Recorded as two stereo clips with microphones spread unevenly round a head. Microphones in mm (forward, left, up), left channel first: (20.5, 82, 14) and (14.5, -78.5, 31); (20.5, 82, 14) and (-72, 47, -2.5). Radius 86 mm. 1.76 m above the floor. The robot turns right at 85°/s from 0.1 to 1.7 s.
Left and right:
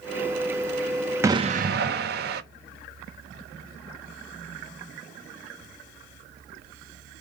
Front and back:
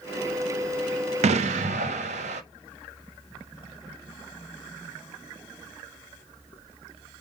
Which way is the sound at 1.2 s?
170° right.